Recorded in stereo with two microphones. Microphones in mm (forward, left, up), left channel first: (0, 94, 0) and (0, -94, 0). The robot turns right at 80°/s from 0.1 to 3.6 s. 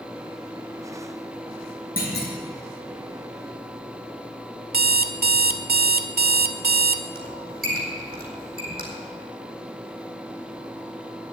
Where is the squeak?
55° right (ahead or behind), 4.5 m.